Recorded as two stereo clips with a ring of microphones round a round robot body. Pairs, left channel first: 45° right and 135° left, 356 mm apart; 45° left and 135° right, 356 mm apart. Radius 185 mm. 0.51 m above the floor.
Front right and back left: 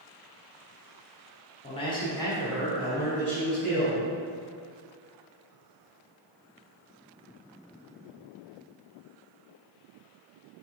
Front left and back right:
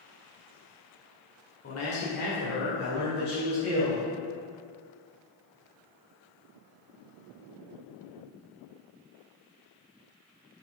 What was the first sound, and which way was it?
A man speaking, 20° left.